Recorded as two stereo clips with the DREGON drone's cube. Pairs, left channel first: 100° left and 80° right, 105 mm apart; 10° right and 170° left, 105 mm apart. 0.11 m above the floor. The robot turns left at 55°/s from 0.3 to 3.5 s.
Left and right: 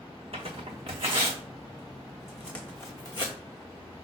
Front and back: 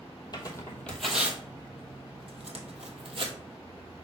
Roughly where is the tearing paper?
Ahead right.